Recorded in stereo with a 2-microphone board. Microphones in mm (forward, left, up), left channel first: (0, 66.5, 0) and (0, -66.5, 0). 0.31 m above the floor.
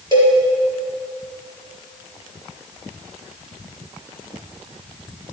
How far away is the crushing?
No crushing in this recording.